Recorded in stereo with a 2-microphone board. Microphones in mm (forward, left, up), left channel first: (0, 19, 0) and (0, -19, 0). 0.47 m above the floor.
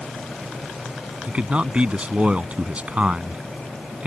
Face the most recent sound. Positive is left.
turn(degrees=-35)  # may be behind; listen again after turning